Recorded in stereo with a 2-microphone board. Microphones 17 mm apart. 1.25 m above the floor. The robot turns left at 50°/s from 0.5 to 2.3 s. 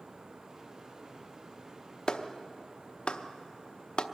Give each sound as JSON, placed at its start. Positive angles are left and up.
{"t": 2.1, "sound": "a clap", "side_deg": 45, "distance_m": 0.8}